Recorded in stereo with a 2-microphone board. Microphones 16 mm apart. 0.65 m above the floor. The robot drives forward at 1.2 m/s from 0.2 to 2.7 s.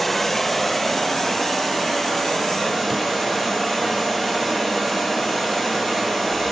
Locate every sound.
0.0 s running water: 10° left (ahead or behind), 1.5 m; by 6.5 s 5° left (ahead or behind), 4.5 m